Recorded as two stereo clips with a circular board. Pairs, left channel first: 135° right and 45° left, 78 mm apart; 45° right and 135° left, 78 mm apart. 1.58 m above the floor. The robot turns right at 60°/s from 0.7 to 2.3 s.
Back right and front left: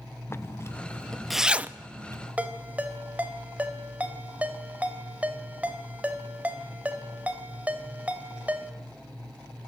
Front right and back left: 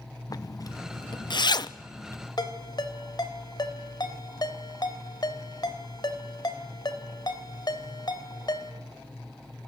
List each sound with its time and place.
0.3 s a zipper: 80° right, 0.8 m; by 2.3 s 15° left, 0.8 m
2.4 s a ringtone: 25° right, 3 m